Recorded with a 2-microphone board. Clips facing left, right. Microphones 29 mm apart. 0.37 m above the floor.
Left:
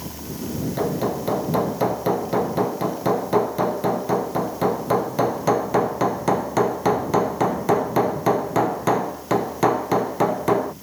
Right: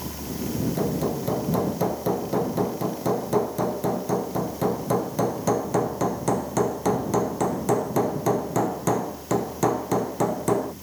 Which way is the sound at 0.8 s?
30° left (ahead or behind).